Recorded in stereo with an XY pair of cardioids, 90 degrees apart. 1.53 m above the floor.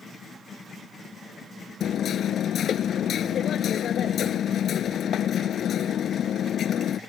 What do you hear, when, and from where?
1.8 s hammering: 70° left